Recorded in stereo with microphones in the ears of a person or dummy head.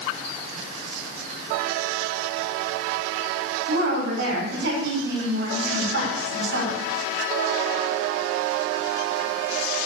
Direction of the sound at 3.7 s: 65° right (ahead or behind).